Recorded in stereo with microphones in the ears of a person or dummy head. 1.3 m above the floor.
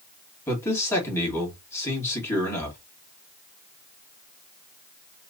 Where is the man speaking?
15° left (ahead or behind), 2.0 m.